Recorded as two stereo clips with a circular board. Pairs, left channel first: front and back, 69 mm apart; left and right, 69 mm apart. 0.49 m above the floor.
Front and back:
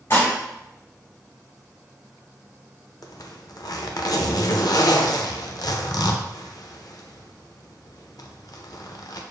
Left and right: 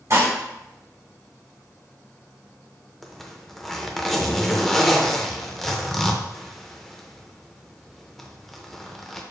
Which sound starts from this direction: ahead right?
Dishes clattering, at 0.1 s.